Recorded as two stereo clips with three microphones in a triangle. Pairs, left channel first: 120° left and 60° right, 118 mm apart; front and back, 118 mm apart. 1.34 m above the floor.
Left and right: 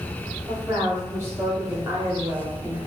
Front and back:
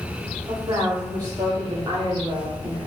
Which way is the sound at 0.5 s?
125° right.